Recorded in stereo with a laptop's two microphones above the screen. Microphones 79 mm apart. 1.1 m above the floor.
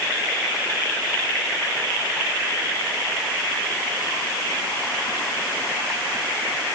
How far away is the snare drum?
I don't hear a snare drum.